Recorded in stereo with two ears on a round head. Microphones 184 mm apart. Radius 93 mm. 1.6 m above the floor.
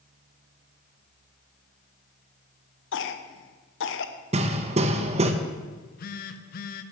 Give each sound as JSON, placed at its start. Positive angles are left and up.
{"t": 2.9, "sound": "a cough", "side_deg": 65, "distance_m": 1.0}
{"t": 4.3, "sound": "hammering", "side_deg": -30, "distance_m": 0.8}
{"t": 5.7, "sound": "a phone buzzing", "side_deg": 45, "distance_m": 0.6}